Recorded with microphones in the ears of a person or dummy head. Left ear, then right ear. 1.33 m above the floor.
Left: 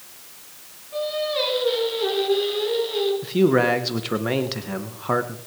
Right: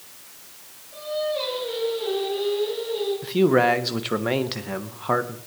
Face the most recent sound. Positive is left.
turn(degrees=-15)  # may be behind; listen again after turning